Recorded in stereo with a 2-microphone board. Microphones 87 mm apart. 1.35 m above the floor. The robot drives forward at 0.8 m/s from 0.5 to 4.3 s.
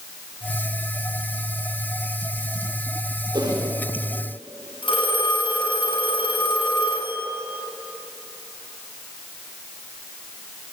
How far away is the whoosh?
About 4.5 m.